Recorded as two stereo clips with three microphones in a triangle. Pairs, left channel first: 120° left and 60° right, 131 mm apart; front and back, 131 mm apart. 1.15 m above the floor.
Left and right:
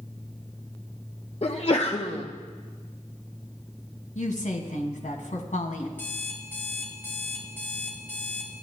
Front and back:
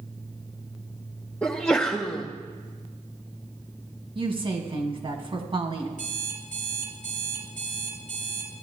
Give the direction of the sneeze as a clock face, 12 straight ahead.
9 o'clock.